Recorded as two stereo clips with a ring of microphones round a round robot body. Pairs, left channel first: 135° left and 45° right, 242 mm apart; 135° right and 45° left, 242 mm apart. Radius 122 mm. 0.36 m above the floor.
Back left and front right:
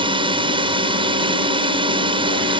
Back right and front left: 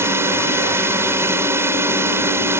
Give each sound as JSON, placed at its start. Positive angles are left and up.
{"t": 0.0, "sound": "a drone", "azimuth_deg": -20}